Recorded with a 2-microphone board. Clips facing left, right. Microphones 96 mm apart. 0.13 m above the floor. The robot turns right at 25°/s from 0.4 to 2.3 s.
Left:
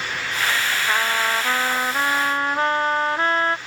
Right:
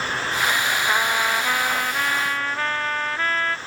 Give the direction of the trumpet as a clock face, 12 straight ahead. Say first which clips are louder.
Left 1 dB; 12 o'clock.